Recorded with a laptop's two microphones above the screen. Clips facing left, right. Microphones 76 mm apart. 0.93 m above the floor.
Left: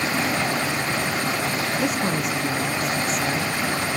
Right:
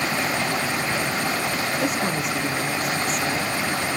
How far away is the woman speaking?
About 1.1 m.